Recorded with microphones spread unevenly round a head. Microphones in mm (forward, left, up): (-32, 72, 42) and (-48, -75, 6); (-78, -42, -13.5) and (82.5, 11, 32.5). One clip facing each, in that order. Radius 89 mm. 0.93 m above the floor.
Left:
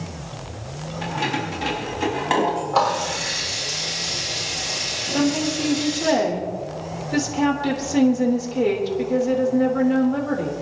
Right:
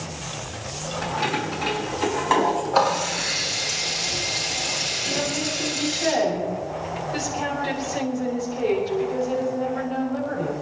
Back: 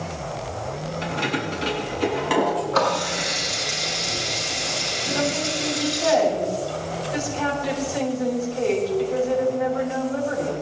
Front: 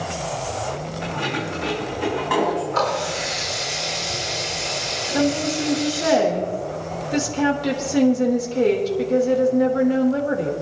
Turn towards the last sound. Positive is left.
turn(degrees=60)